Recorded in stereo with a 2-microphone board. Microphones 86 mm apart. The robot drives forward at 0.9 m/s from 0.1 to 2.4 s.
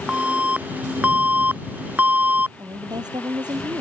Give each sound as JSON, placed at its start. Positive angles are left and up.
{"t": 0.1, "sound": "an alarm", "side_deg": -15}
{"t": 2.6, "sound": "a woman speaking", "side_deg": -60}